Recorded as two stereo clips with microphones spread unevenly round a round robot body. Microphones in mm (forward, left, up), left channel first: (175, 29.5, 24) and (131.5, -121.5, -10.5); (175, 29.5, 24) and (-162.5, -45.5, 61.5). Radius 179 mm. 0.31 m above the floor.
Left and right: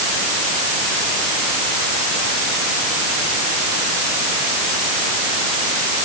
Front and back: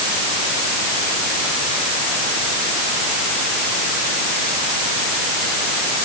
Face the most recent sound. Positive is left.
No sound to turn to.